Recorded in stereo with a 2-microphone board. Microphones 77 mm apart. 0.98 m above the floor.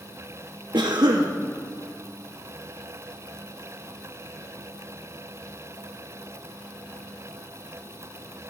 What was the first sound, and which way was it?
A cough, 75° right (ahead or behind).